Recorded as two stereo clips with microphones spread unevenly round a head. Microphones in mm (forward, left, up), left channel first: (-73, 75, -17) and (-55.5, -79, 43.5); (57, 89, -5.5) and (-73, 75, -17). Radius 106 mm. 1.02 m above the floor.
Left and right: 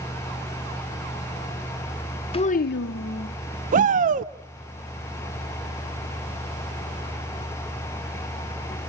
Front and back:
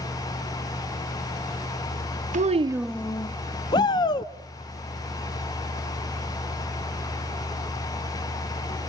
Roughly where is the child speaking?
Behind.